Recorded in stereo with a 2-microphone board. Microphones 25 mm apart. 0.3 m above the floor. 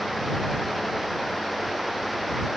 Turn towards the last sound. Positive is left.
No sound to turn to.